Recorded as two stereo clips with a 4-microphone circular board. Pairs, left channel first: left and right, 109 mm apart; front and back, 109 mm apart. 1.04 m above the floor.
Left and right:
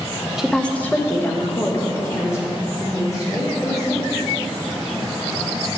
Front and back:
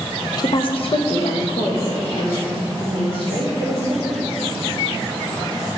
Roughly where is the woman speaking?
Ahead.